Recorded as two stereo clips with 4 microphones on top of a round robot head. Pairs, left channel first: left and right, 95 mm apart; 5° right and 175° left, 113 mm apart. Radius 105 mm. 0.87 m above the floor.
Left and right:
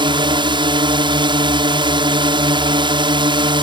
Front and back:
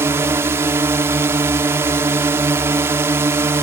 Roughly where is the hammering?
No hammering in this recording.